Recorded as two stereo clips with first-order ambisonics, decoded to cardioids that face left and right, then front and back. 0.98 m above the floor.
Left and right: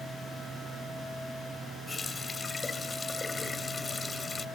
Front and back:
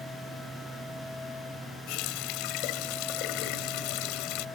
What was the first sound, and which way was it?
A running tap, 15° left.